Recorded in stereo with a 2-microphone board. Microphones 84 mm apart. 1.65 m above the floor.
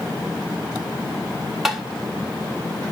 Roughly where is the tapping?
Centre.